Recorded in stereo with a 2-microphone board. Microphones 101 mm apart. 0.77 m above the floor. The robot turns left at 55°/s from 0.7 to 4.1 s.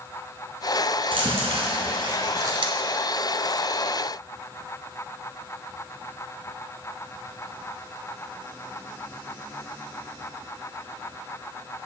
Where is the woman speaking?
No woman speaking in this recording.